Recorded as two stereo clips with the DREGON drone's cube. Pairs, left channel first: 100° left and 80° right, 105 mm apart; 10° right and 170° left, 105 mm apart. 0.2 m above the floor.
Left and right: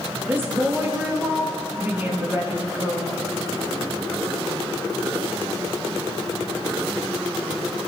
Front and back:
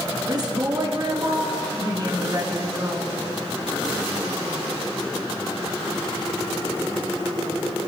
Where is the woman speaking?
145° right, 4 m.